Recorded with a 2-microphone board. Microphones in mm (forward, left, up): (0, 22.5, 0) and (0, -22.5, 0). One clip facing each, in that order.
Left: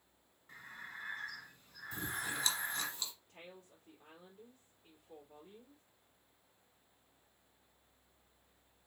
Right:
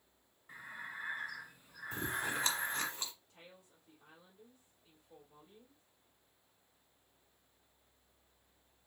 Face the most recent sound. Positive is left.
turn(degrees=55)  # may be behind; listen again after turning